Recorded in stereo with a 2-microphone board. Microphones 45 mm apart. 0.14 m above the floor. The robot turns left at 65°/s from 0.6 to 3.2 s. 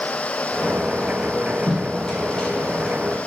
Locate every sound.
1.7 s tape being pulled: centre (ahead or behind), 1.0 m; by 3.3 s 20° left (ahead or behind), 1.0 m